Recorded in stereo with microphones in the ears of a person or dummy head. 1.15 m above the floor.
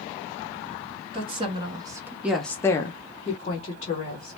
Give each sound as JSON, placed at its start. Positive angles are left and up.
{"t": 1.1, "sound": "a woman speaking", "side_deg": -30, "distance_m": 0.9}